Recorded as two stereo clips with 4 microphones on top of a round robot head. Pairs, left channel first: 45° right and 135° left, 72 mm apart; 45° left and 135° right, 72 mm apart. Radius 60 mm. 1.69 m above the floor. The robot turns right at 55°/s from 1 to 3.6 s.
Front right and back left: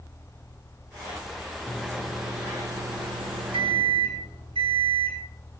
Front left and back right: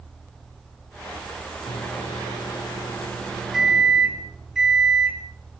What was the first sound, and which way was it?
A microwave, 30° left.